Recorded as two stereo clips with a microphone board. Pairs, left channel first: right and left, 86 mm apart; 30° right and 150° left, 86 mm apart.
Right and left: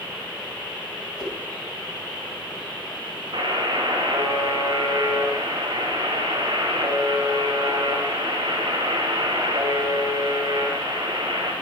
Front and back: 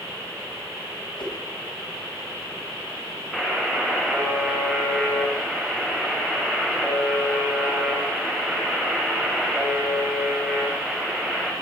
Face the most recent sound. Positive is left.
turn(degrees=60)